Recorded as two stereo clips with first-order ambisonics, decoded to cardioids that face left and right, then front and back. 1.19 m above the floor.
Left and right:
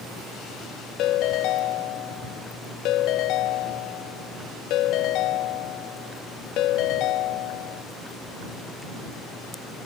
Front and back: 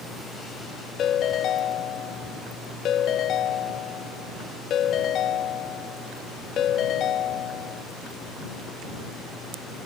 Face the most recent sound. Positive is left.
turn(degrees=55)